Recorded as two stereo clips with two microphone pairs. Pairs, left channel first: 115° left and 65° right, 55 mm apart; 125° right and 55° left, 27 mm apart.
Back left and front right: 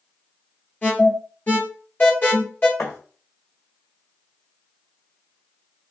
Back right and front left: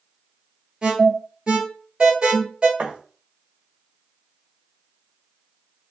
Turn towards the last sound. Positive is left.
turn(degrees=80)